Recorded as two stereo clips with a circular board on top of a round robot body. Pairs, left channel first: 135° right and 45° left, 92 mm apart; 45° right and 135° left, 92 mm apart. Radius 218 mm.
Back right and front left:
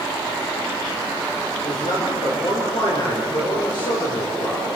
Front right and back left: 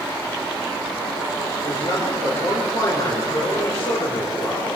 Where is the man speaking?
100° right, 6 m.